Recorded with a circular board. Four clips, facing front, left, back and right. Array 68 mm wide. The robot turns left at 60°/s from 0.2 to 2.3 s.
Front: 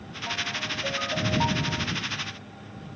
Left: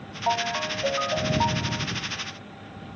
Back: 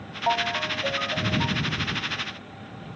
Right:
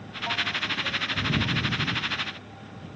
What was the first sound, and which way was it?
A ringtone, 140° left.